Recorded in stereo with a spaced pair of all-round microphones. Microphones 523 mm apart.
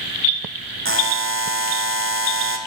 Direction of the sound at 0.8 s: 25° right (ahead or behind).